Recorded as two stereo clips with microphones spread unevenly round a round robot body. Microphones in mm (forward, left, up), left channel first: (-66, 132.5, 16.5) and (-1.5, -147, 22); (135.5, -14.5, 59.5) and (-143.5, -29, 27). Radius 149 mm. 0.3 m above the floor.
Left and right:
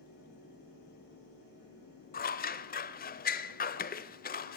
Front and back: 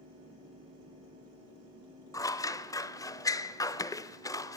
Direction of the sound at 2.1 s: 85° left.